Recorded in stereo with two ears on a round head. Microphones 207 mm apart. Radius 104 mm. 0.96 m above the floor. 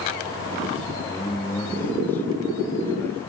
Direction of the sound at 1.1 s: 10° left (ahead or behind).